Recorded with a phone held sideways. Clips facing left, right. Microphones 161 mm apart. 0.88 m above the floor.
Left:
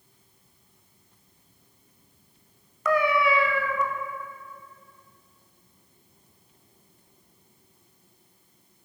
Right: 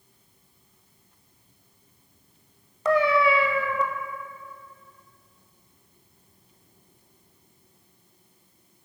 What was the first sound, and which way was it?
A cat meowing, 30° right (ahead or behind).